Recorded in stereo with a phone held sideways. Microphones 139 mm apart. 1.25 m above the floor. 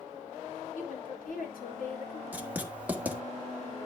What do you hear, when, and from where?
0.8 s a woman speaking: 80° left, 4 m
2.3 s writing: 10° right (ahead or behind), 1.5 m